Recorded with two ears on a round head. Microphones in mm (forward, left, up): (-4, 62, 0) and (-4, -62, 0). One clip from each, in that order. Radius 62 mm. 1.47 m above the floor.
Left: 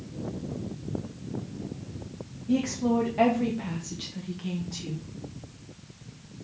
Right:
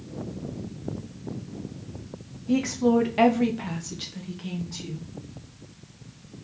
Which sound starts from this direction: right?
A woman speaking, at 2.5 s.